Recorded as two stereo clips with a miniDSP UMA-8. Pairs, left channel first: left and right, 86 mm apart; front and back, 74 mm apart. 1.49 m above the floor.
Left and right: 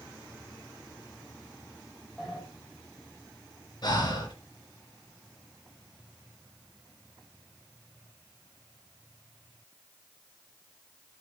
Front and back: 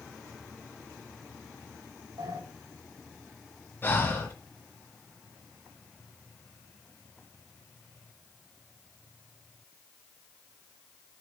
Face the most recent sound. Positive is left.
turn(degrees=55)